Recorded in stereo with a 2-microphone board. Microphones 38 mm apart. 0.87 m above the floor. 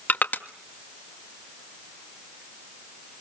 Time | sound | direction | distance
0.1 | crushing | 50° left (ahead or behind) | 1.5 m